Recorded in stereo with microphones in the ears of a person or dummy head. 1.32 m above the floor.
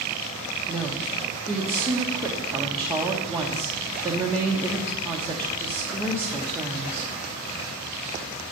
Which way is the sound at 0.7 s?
15° right (ahead or behind).